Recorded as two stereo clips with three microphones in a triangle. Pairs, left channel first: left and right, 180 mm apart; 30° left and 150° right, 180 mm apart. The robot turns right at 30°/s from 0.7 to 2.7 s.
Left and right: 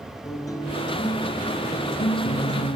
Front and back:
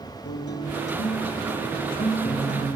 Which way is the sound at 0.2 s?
20° left.